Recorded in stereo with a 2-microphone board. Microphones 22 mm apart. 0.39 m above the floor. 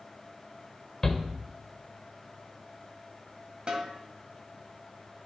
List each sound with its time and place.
1.0 s a shout: 20° left (ahead or behind), 1.0 m
3.7 s a snare drum: 45° right (ahead or behind), 1.7 m